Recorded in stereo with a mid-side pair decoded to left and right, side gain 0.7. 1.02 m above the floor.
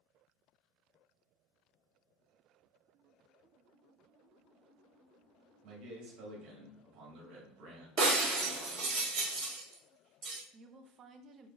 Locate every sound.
5.6 s a man speaking: 65° right, 2 m
8.0 s breaking glass: 40° right, 1.9 m
10.5 s a woman speaking: 40° right, 0.6 m